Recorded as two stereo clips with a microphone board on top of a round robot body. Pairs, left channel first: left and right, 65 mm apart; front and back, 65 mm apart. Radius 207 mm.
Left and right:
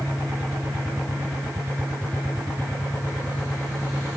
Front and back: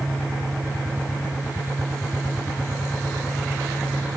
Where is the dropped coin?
I don't hear a dropped coin.